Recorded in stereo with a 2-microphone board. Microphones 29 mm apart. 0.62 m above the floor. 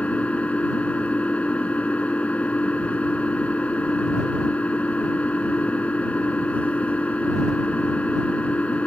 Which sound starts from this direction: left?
An engine running, at 0.0 s.